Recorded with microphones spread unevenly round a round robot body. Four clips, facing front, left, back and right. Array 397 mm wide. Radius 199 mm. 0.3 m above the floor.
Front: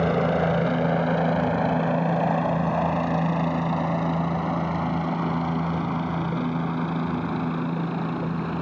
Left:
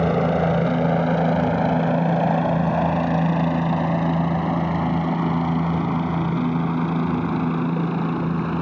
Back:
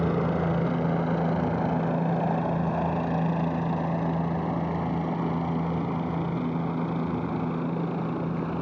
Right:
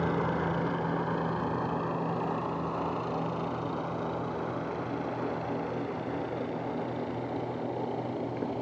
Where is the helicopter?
80° left; by 8.6 s 75° left.